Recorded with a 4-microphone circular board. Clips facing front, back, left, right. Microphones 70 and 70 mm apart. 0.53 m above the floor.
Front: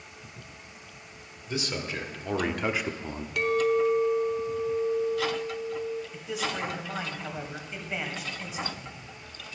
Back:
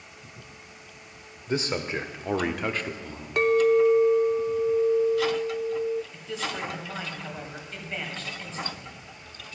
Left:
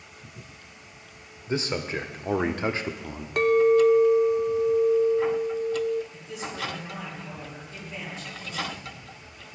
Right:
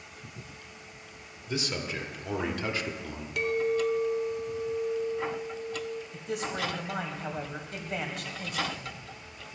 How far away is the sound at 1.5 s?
About 1.7 m.